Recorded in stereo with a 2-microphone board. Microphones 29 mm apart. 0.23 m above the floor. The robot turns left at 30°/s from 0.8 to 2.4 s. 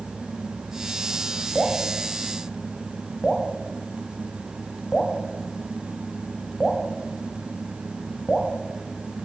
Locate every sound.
1.6 s dripping: 10° right (ahead or behind), 1.4 m; by 8.5 s 5° left (ahead or behind), 1.4 m